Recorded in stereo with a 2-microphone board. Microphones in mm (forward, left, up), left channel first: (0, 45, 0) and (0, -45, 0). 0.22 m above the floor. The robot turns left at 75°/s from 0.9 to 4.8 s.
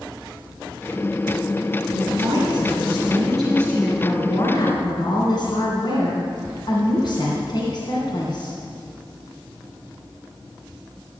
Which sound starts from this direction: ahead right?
A woman speaking, at 1.9 s.